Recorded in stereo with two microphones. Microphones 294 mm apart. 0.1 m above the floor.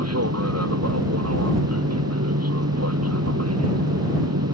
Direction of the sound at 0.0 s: 55° right (ahead or behind).